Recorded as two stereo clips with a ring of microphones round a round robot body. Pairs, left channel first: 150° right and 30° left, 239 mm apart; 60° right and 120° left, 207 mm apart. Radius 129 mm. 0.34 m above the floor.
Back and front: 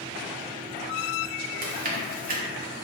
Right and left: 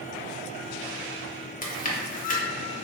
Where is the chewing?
15° right, 0.7 m.